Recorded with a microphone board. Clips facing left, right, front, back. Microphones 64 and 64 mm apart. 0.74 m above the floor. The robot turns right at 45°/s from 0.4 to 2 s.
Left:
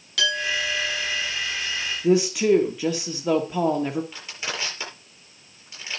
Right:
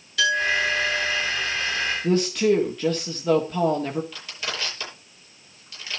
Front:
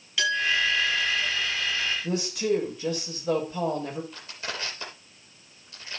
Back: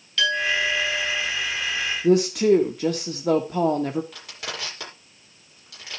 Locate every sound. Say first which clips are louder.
0.2 s a clink: right 4 dB, back 2 dB; 80° left, 5.5 m; by 1.2 s 115° left, 5.5 m
2.0 s a woman speaking: left 2 dB, back 13 dB; 170° left, 1.5 m
4.1 s crushing: even, back 1 dB; 160° left, 9 m